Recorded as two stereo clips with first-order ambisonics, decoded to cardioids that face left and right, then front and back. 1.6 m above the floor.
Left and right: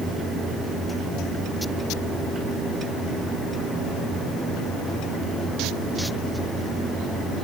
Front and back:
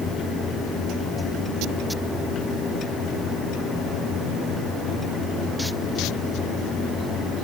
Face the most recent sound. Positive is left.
No sound to turn to.